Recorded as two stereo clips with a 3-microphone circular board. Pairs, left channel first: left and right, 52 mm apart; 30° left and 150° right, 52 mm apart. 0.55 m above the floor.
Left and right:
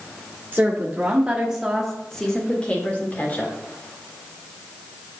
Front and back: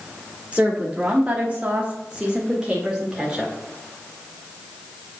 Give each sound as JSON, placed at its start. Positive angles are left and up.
{"t": 0.5, "sound": "a woman speaking", "azimuth_deg": -100, "distance_m": 1.3}